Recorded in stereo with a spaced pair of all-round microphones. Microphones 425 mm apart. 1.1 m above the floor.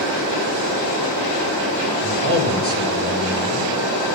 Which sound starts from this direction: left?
A man speaking, at 2.0 s.